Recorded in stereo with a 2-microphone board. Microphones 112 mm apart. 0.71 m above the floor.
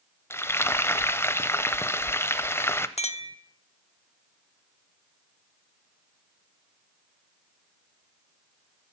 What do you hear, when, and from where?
0.3 s frying: 20° left (ahead or behind), 0.5 m
3.0 s a clink: 75° left (ahead or behind), 0.8 m